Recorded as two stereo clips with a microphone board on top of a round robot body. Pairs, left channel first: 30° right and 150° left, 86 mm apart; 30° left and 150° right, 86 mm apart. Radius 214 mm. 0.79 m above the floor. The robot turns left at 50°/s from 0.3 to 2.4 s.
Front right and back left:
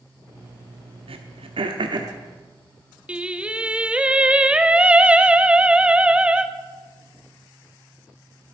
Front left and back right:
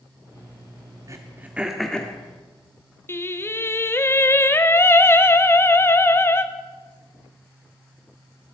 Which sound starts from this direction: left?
Singing, at 3.1 s.